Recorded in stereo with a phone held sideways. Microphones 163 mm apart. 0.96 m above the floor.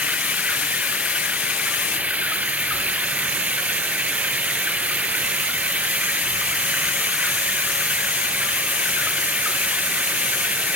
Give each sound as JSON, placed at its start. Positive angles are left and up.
{"t": 0.0, "sound": "running water", "side_deg": -10}